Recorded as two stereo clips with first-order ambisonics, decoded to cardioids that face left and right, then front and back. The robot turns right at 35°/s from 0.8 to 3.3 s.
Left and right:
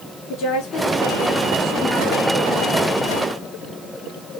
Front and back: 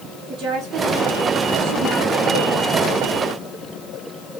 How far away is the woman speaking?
About 3 m.